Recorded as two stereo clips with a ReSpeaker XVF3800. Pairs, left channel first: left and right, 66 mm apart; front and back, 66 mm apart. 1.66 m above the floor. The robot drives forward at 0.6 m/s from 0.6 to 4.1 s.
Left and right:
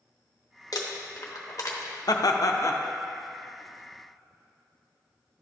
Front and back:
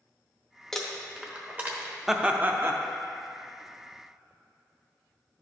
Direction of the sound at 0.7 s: 85° left.